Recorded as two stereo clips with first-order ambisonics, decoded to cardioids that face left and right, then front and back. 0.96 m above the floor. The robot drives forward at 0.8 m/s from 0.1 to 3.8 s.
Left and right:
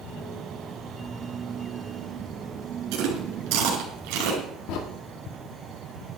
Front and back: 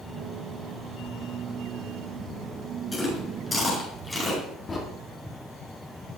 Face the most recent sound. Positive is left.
turn(degrees=70)